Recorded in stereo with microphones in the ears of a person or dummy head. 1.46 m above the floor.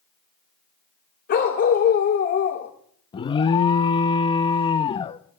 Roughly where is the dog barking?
Left.